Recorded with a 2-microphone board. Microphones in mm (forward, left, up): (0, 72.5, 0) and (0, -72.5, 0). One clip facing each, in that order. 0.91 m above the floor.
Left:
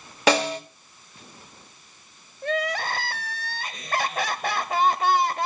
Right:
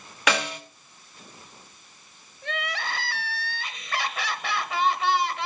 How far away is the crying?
About 0.8 m.